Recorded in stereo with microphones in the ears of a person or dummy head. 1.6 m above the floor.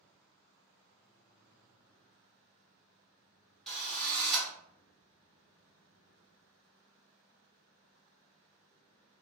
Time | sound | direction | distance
3.7 | a drill | 5° left (ahead or behind) | 1.1 m